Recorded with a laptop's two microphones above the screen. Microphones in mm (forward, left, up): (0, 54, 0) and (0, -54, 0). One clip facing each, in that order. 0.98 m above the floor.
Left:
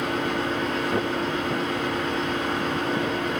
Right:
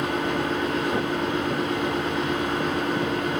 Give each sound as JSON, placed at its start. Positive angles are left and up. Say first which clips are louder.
{"t": 0.0, "sound": "a fan", "louder": "right 1 dB", "side_deg": -35, "distance_m": 1.4}